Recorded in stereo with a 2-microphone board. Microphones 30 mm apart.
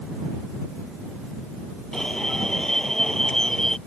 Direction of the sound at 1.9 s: 15° left (ahead or behind).